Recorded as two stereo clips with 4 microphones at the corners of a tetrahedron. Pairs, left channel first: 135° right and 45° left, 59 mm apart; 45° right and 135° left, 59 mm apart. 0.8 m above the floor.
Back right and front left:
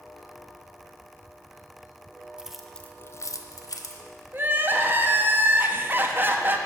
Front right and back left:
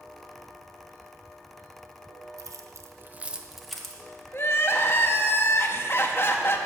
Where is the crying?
5° right, 0.7 m.